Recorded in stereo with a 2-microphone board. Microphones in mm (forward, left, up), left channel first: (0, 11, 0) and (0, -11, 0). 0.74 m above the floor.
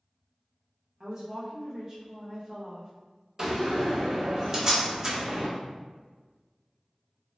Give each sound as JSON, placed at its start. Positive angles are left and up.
{"t": 1.0, "sound": "a woman speaking", "side_deg": -20, "distance_m": 0.7}
{"t": 3.4, "sound": "a door slam", "side_deg": -25, "distance_m": 0.7}